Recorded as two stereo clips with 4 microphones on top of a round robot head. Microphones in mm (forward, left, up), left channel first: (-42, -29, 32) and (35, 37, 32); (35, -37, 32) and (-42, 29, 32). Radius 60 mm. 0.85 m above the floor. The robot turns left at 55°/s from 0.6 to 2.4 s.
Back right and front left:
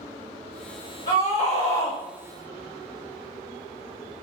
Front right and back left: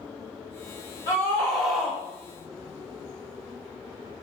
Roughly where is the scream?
Right.